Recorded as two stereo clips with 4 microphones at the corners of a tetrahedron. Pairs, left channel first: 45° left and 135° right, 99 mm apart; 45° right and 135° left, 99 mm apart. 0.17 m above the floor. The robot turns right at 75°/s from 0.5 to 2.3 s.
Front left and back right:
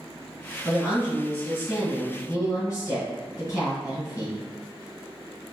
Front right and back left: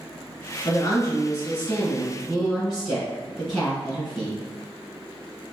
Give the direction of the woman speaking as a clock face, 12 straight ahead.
2 o'clock.